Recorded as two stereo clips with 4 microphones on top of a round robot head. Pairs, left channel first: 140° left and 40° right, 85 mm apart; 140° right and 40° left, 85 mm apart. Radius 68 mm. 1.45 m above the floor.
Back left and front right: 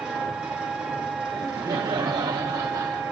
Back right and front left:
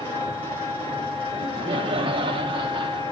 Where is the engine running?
125° right, 3 m.